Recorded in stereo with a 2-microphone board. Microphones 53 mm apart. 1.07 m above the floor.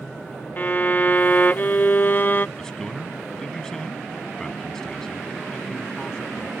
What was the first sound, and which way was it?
A violin, 40° left (ahead or behind).